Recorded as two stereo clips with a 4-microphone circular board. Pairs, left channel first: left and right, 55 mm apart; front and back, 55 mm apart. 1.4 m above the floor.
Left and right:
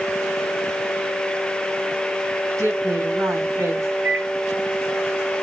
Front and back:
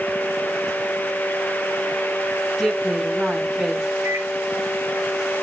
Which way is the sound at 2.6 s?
95° right.